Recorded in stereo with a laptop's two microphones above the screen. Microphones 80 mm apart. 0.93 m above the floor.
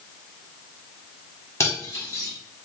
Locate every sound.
1.6 s cutlery clinking: 35° left (ahead or behind), 1.2 m